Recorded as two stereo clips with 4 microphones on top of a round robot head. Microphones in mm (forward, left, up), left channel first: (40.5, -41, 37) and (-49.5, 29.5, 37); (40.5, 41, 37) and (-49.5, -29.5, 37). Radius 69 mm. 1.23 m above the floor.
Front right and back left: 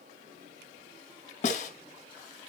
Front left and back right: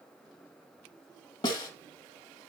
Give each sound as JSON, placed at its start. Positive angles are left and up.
{"t": 1.4, "sound": "a snare drum", "azimuth_deg": -20, "distance_m": 1.7}